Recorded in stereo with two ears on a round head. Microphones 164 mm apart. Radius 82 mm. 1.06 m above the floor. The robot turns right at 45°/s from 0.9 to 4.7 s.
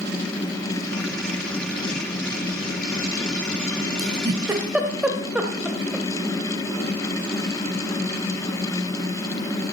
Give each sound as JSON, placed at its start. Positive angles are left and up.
{"t": 4.0, "sound": "a giggle", "side_deg": -35, "distance_m": 1.4}